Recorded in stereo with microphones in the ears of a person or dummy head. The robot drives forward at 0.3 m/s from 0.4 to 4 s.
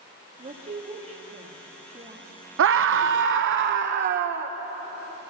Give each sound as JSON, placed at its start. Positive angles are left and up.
{"t": 0.4, "sound": "a woman speaking", "side_deg": -35, "distance_m": 2.5}
{"t": 2.6, "sound": "a scream", "side_deg": -65, "distance_m": 0.9}